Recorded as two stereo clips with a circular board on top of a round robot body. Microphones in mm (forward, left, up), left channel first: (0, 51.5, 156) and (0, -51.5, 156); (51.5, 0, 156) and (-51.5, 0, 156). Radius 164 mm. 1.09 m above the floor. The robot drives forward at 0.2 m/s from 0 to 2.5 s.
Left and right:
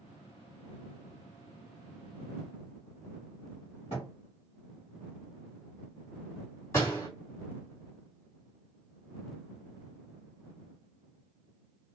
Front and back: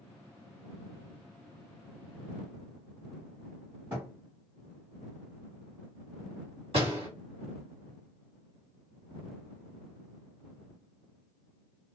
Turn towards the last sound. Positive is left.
turn(degrees=155)